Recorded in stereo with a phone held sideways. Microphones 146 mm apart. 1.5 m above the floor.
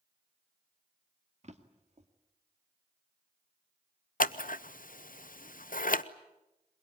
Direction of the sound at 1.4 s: 50° right (ahead or behind).